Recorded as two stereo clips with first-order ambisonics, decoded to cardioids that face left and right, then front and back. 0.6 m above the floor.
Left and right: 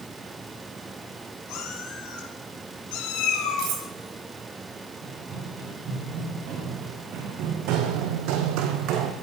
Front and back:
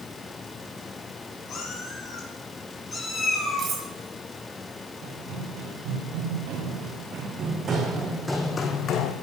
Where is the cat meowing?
60° left, 4.5 m; by 3.7 s 85° left, 5 m.